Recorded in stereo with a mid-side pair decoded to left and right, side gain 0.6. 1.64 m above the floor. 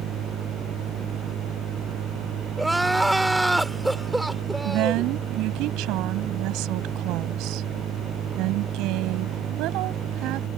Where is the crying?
5° right.